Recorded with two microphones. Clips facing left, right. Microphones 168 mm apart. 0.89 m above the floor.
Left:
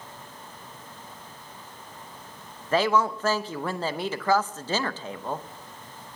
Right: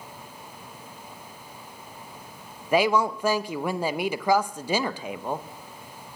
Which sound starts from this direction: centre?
A woman speaking, at 2.7 s.